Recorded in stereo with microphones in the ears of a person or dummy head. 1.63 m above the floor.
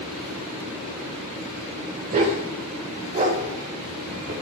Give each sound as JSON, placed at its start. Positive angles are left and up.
{"t": 2.1, "sound": "a dog barking", "side_deg": -45, "distance_m": 2.0}